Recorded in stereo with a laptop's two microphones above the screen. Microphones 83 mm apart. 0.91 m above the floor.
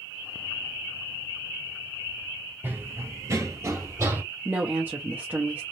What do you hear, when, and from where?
2.6 s running footsteps: 25° right (ahead or behind), 1.1 m
4.5 s a woman speaking: 25° right (ahead or behind), 0.6 m